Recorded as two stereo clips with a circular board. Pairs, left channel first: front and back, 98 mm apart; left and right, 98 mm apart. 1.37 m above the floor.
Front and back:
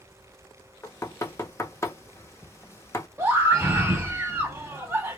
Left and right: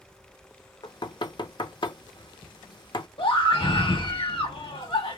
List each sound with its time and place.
0.8 s knocking: 60° left, 0.6 m
3.2 s a scream: 115° left, 1.4 m